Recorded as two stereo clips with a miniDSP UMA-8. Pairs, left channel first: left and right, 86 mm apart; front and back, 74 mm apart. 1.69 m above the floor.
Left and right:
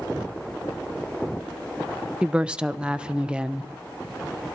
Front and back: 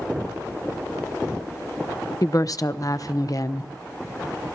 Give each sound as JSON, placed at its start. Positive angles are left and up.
{"t": 2.2, "sound": "a woman speaking", "azimuth_deg": -15, "distance_m": 0.7}